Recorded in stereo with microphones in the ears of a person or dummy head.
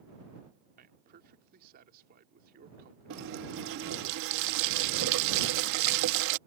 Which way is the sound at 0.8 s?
50° right (ahead or behind).